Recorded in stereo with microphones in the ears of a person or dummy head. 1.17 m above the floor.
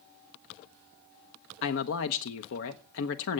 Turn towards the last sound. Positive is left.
turn(degrees=75)  # may be behind; listen again after turning